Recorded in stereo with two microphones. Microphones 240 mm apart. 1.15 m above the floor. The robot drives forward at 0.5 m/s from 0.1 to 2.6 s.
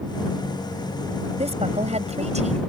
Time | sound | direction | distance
1.4 | a woman speaking | 25° right (ahead or behind) | ?